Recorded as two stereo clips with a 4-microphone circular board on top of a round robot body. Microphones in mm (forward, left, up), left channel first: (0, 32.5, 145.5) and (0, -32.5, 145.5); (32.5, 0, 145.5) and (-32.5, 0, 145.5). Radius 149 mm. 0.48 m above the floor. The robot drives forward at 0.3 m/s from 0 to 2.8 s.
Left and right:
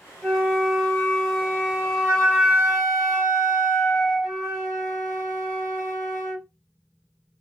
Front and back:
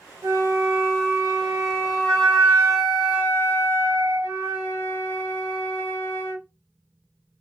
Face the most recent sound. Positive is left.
turn(degrees=175)